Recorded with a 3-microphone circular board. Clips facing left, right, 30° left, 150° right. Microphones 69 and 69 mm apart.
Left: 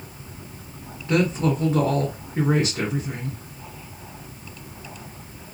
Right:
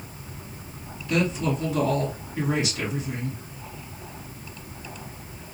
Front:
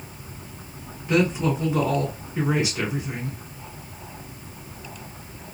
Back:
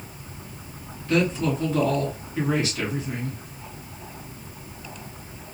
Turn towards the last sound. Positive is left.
turn(degrees=95)